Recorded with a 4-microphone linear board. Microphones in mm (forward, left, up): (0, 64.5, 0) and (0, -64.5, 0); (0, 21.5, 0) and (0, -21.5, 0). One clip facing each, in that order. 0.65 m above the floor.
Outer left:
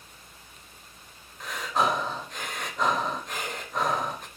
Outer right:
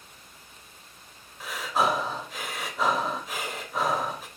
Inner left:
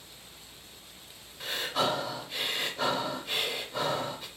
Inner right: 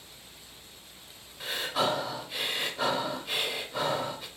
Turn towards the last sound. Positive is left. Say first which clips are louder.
# outer right 1 dB, inner right 1 dB
turn(degrees=-5)  # may be behind; listen again after turning